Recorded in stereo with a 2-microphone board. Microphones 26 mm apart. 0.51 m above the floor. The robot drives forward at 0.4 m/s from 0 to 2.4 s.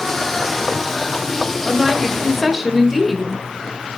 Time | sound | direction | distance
1.6 | a woman speaking | 5° right (ahead or behind) | 1.9 m